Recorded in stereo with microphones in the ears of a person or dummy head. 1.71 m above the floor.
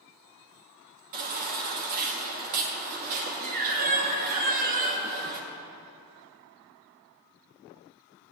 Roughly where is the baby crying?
Right.